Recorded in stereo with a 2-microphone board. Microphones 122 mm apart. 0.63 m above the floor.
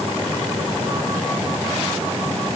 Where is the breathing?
I don't hear breathing.